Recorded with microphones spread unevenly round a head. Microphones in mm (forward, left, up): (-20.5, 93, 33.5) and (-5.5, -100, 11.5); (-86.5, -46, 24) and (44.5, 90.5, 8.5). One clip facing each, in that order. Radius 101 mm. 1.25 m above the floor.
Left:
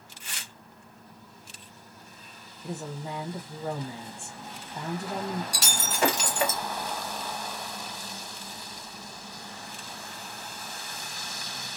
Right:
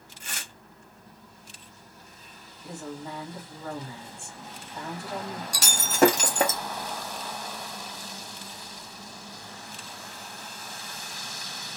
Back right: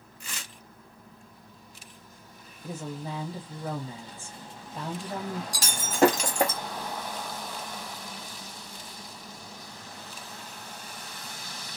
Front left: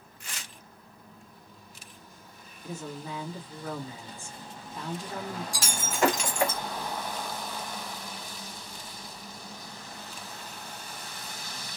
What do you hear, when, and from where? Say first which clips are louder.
0.2 s tearing paper: right 4 dB, back right 2 dB; 135° right, 0.5 m
2.6 s a woman speaking: left 1 dB, back right 2 dB; 170° left, 0.7 m
5.5 s breaking glass: right 4 dB, back right 6 dB; 115° right, 0.6 m